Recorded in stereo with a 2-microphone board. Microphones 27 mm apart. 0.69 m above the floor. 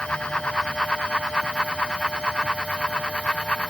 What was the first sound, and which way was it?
Only background noise.